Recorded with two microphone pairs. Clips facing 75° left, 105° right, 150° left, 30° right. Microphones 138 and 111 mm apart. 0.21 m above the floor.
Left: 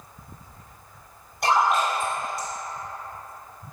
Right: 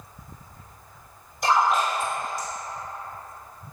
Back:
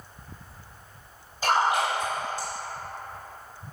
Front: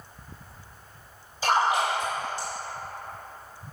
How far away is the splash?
About 1.8 m.